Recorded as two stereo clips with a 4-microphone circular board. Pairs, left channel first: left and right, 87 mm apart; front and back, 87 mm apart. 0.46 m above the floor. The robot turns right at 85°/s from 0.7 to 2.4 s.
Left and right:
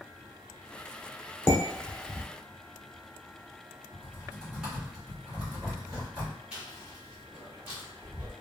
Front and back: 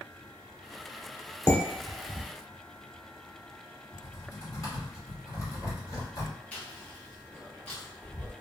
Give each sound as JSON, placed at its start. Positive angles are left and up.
{"t": 1.5, "sound": "dishes clattering", "azimuth_deg": 40, "distance_m": 0.8}
{"t": 3.9, "sound": "typing on a keyboard", "azimuth_deg": -15, "distance_m": 1.5}
{"t": 6.5, "sound": "chewing", "azimuth_deg": -30, "distance_m": 1.3}